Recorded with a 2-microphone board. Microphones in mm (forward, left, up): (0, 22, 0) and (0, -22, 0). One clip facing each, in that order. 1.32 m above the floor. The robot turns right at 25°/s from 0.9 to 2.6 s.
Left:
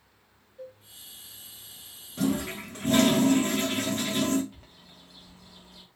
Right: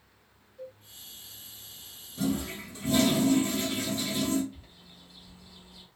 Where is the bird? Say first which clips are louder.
Even; 65° left (ahead or behind), 0.9 m.